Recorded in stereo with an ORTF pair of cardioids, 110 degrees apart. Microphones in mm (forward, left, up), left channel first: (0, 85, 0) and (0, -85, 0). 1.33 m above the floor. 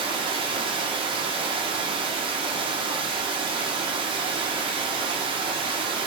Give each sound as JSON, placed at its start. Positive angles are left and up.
{"t": 0.0, "sound": "running water", "azimuth_deg": -30, "distance_m": 0.8}